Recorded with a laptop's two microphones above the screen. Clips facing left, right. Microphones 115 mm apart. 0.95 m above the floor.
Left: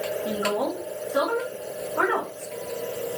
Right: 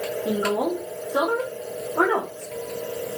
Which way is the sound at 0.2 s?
15° right (ahead or behind).